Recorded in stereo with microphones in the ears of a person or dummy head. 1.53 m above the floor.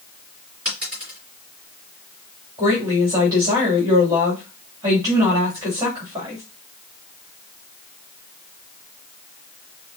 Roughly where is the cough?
I don't hear a cough.